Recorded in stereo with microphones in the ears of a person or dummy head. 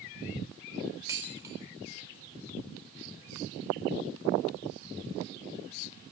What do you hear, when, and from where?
1.1 s dishes clattering: 15° right (ahead or behind), 3.5 m